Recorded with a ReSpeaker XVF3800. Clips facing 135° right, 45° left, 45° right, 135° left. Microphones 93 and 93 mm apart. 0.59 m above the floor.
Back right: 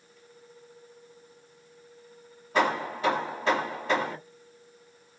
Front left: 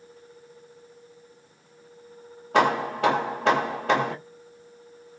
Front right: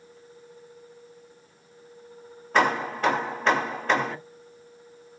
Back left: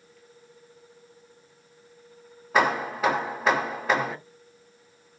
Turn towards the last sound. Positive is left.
turn(degrees=50)